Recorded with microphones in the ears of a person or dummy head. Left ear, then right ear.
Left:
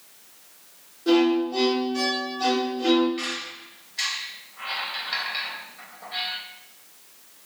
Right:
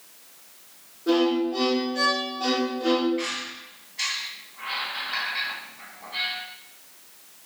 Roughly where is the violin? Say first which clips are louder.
Left 2 dB; left.